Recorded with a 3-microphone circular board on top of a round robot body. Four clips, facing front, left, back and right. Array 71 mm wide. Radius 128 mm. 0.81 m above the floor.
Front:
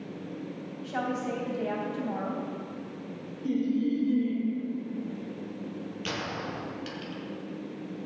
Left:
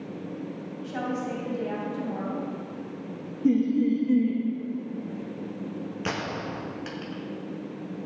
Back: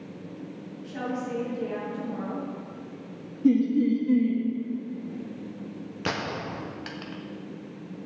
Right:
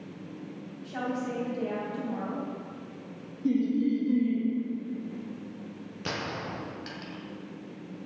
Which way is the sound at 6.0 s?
150° left.